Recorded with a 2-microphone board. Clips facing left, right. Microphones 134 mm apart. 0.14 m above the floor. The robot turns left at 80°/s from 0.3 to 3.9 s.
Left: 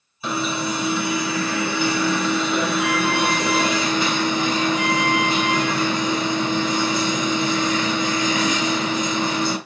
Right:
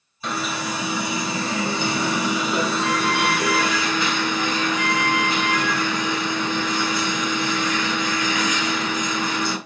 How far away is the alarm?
About 2 m.